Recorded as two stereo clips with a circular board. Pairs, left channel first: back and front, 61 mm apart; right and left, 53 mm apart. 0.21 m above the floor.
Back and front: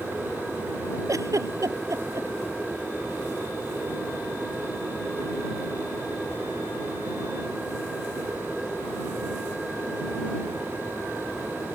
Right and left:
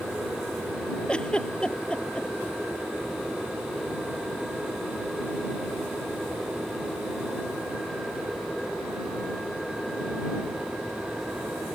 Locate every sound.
1.1 s a giggle: 20° right